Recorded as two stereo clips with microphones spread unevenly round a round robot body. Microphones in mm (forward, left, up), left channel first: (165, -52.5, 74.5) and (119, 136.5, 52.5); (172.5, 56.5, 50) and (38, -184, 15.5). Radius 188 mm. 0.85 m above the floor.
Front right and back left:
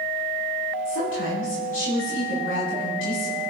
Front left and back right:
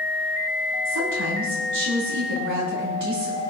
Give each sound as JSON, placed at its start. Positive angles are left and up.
{"t": 0.8, "sound": "a woman speaking", "azimuth_deg": -115, "distance_m": 6.5}